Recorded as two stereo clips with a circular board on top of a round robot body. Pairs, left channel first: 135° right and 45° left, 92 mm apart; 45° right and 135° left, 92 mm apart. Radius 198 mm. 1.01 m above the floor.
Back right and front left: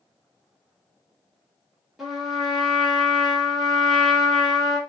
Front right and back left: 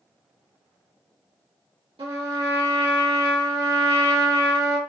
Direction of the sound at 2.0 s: 130° left.